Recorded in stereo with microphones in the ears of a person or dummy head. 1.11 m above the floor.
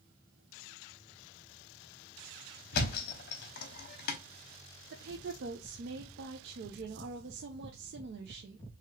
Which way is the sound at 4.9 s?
55° right (ahead or behind).